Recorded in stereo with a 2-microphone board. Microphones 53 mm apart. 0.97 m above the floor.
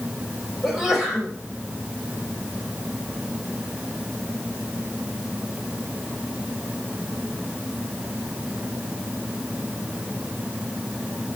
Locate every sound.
0.6 s a sneeze: centre (ahead or behind), 5.5 m